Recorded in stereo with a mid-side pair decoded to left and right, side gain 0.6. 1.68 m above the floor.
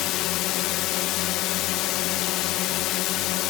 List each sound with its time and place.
0.0 s a drone: 70° left